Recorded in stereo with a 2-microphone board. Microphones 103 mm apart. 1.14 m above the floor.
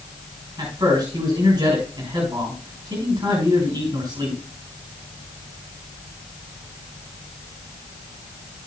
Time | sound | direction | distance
0.6 | a man speaking | 50° right (ahead or behind) | 5.5 m